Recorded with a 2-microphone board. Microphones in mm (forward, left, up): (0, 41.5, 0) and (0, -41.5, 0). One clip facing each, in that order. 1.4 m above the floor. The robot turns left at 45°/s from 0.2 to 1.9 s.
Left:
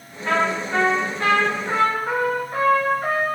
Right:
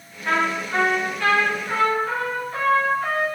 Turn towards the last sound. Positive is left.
turn(degrees=110)